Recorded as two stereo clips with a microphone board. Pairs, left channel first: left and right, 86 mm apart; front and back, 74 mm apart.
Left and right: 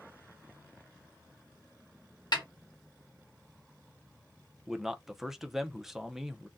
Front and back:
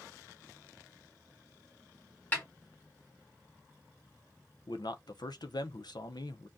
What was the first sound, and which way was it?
A snare drum, 65° left.